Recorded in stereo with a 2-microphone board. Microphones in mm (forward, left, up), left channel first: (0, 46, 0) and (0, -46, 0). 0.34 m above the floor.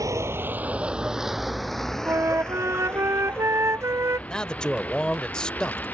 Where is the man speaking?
10° left (ahead or behind).